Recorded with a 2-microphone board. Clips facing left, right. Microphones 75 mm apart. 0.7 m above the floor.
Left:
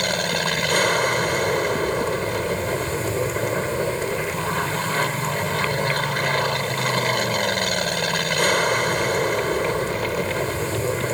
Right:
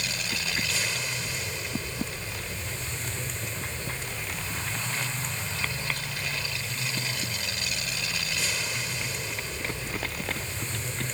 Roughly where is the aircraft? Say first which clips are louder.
Left 11 dB; left.